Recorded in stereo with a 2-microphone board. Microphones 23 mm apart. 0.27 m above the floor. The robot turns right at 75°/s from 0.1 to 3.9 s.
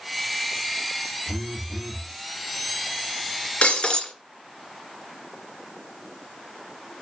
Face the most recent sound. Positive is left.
turn(degrees=50)  # may be behind; listen again after turning